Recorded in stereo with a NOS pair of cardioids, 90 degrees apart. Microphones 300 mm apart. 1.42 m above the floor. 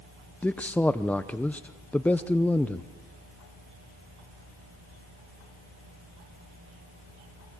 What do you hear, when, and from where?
0.4 s a man speaking: 5° left, 0.6 m